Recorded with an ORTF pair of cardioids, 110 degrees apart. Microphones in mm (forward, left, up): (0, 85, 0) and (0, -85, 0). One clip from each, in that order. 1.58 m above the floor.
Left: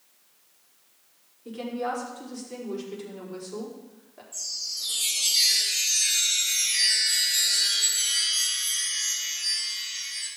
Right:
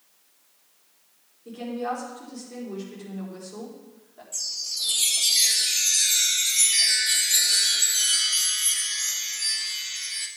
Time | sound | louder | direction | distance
1.4 | a woman speaking | even | 25° left | 5 m
4.3 | a chime | right 2 dB | 45° right | 3 m